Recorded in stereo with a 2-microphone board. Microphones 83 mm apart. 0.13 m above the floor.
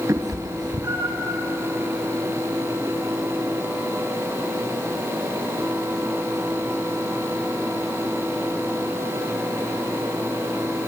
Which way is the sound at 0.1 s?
45° right (ahead or behind).